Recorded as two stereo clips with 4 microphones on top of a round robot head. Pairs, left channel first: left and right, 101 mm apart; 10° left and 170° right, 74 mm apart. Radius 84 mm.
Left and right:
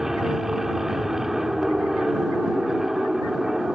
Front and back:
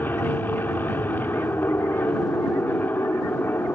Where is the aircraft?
10° right.